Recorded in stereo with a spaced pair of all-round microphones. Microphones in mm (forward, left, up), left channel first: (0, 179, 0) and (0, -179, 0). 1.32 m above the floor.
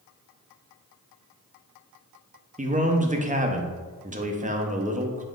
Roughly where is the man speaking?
Right.